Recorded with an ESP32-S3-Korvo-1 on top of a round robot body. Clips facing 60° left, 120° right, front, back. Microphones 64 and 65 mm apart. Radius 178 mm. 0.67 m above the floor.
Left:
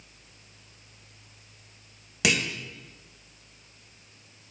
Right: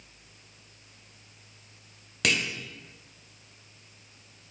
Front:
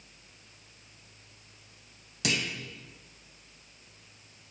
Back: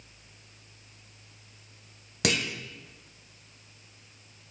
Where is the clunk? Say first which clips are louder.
Left 2 dB, back 3 dB; 140° left, 1.7 m.